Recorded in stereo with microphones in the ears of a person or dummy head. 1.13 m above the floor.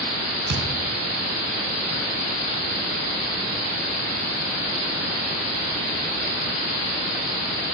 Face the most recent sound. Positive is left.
turn(degrees=-75)  # may be behind; listen again after turning